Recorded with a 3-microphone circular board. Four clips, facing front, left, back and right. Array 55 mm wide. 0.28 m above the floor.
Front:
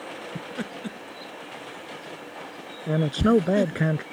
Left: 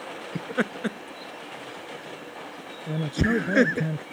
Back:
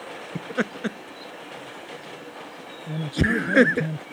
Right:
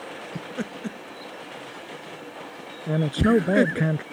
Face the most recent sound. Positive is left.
turn(degrees=-40)